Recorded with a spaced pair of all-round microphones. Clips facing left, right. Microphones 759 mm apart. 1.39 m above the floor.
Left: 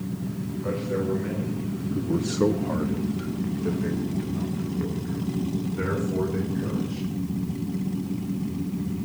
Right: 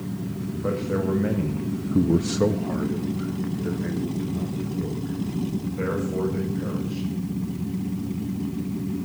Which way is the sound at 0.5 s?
70° right (ahead or behind).